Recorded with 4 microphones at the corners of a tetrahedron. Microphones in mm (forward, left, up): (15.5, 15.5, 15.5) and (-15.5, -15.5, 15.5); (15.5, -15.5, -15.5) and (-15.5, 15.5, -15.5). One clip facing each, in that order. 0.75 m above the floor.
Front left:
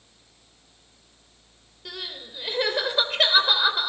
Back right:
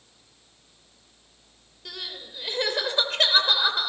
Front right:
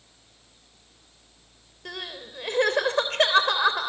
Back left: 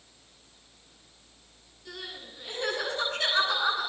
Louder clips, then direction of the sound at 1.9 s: Front left 1 dB, front right 5 dB; 35° right.